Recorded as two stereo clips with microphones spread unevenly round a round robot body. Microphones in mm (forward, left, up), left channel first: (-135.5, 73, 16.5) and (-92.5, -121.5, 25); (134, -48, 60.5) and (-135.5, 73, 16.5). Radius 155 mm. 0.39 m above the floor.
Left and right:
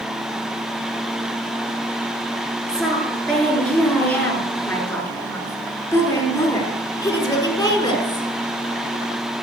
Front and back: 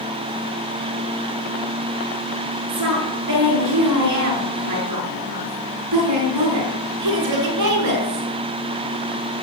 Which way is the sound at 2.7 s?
170° right.